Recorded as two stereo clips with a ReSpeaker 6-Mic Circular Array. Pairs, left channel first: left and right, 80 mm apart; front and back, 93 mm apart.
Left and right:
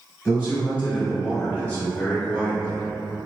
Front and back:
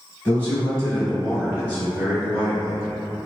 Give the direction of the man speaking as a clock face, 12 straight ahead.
10 o'clock.